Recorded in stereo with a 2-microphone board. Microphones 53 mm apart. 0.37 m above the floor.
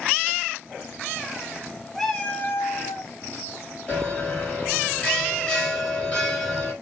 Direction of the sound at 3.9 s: 20° left (ahead or behind).